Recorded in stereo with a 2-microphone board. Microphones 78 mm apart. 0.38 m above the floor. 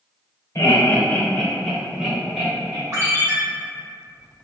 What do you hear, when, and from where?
0.6 s laughter: 40° left (ahead or behind), 1.1 m; by 2.8 s 25° right (ahead or behind), 1.5 m
2.9 s a ringtone: 40° right (ahead or behind), 1.1 m